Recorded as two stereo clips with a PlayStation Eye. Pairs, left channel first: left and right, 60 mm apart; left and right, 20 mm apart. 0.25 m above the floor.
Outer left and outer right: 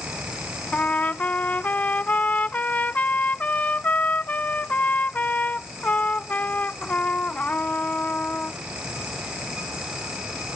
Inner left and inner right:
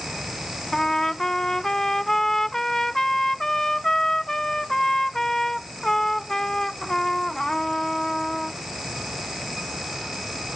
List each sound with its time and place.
0.7 s a trumpet: 25° left (ahead or behind)